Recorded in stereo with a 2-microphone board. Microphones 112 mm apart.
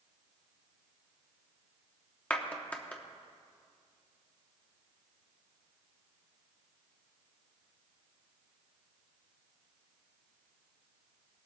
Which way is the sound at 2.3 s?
10° left (ahead or behind).